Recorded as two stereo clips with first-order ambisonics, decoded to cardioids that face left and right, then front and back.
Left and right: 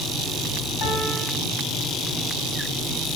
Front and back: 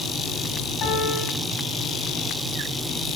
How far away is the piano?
About 4.5 m.